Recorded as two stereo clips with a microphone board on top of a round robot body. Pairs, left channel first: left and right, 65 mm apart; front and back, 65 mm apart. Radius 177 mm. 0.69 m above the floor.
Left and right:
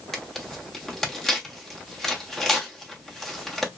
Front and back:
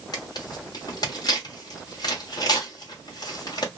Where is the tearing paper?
5° left, 1.1 m.